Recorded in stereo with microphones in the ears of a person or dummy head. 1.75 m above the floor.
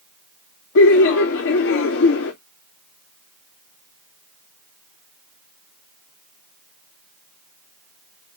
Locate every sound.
0.8 s laughter: 70° left (ahead or behind), 0.8 m